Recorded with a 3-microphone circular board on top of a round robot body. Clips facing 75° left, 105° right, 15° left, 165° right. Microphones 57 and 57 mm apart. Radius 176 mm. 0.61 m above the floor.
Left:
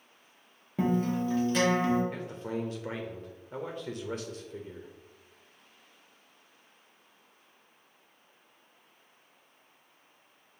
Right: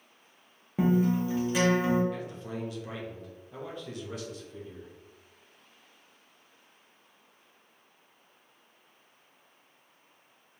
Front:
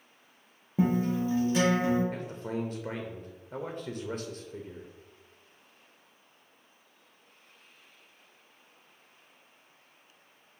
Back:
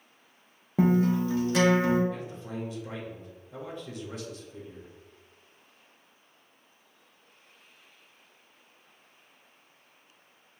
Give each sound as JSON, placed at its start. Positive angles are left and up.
{"t": 0.8, "sound": "a guitar", "azimuth_deg": 175, "distance_m": 0.6}
{"t": 2.1, "sound": "a man speaking", "azimuth_deg": 30, "distance_m": 0.7}